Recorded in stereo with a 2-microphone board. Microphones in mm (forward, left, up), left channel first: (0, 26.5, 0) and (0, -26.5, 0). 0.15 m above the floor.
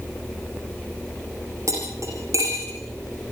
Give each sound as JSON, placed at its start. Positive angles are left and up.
{"t": 1.7, "sound": "cutlery clinking", "side_deg": -65, "distance_m": 7.5}